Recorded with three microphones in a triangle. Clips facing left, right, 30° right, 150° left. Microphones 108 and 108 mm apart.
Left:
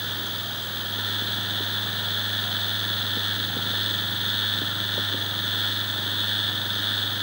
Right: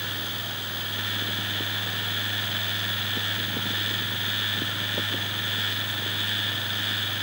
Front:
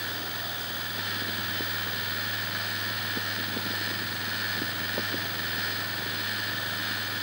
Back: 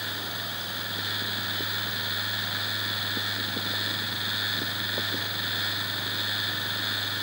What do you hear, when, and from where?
Only background noise.